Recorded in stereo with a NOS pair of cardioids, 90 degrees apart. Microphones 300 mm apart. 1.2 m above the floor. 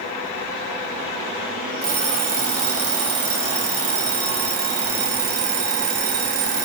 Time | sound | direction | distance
1.8 | an alarm clock | 50° right | 1.3 m